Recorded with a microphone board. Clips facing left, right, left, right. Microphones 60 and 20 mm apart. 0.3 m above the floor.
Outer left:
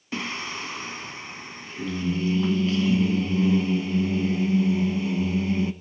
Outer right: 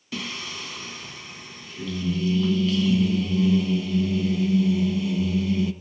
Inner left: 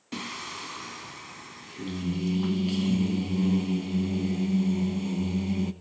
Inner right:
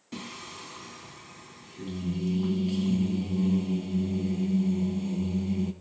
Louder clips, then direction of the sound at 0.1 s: Outer left 3 dB, inner left 5 dB; 30° left (ahead or behind).